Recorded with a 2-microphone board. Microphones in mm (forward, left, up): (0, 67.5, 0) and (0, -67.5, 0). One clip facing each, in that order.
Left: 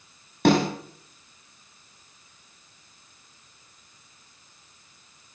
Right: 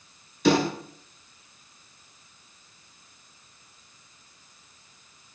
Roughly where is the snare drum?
Left.